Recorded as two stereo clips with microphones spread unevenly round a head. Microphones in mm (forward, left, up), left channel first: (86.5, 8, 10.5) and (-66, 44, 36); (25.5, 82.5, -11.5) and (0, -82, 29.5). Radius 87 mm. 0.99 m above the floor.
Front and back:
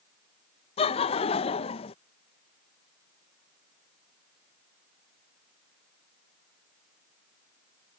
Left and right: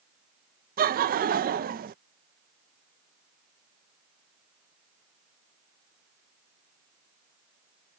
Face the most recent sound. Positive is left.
turn(degrees=-60)